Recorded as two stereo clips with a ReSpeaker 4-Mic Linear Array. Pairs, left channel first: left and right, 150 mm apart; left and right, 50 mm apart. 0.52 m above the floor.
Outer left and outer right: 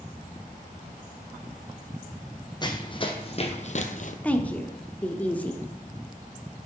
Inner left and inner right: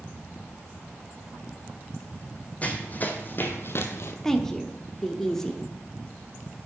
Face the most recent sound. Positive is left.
turn(degrees=10)  # may be behind; listen again after turning